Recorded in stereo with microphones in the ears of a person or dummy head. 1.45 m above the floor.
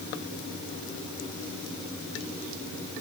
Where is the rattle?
I don't hear a rattle.